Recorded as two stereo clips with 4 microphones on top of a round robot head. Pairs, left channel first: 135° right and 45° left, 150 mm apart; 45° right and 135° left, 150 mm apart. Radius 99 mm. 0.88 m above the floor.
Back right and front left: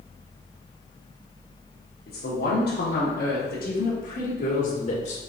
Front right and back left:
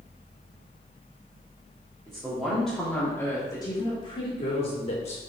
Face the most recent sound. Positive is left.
turn(degrees=-90)